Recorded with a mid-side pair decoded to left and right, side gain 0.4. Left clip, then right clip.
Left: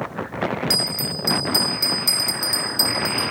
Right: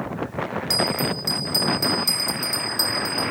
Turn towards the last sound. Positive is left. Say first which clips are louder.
# right 3 dB
turn(degrees=25)